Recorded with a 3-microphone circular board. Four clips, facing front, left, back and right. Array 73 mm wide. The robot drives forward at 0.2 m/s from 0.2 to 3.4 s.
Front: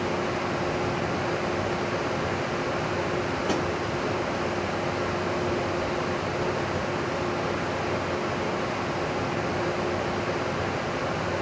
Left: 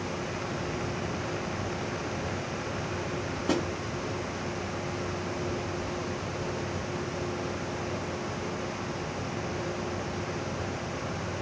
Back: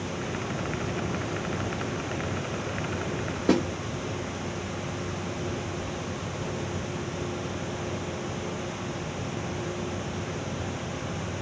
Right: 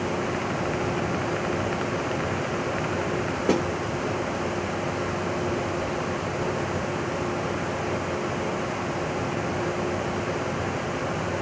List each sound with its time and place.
3.5 s a snare drum: 130° right, 1.4 m